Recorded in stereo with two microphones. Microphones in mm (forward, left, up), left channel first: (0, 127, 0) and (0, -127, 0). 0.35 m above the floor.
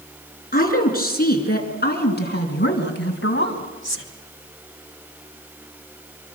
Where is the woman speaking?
35° left (ahead or behind), 5.5 m; by 4.1 s 50° left (ahead or behind), 2.5 m.